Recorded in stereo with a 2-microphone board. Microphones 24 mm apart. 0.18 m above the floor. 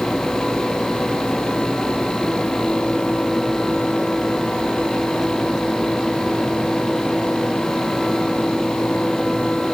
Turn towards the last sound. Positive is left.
No sound to turn to.